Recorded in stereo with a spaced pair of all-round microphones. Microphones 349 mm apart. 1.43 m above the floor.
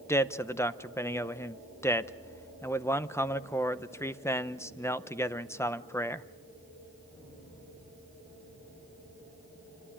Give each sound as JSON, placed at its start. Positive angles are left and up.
{"t": 0.1, "sound": "a man speaking", "side_deg": 10, "distance_m": 0.8}